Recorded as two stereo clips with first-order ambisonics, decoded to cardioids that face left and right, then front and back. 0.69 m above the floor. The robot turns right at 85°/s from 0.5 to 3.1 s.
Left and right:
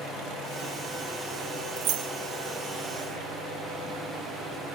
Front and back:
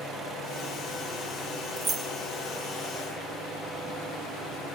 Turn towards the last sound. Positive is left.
turn(degrees=-10)